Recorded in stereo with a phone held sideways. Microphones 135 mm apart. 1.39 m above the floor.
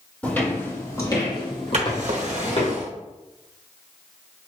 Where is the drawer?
60° right (ahead or behind), 1.0 m.